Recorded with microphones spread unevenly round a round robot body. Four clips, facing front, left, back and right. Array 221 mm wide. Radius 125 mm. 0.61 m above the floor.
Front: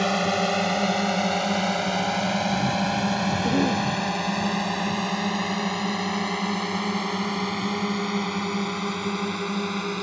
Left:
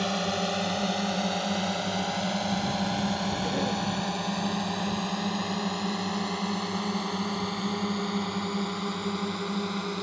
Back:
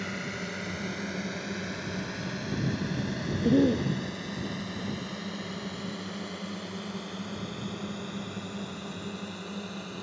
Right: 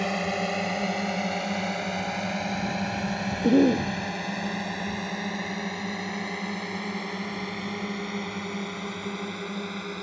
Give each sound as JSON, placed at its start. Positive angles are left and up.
{"t": 0.0, "sound": "a drone", "azimuth_deg": -5}
{"t": 3.4, "sound": "a cough", "azimuth_deg": -100}